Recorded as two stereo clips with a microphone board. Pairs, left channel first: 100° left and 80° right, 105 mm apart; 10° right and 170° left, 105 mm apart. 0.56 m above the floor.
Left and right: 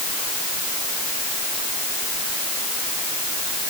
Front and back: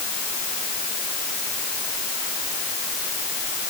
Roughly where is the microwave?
No microwave in this recording.